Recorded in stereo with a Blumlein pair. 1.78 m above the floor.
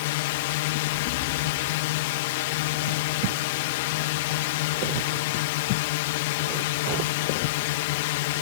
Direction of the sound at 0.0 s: 50° left.